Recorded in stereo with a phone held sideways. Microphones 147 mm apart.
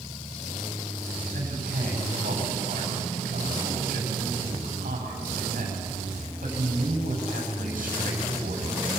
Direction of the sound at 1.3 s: 70° right (ahead or behind).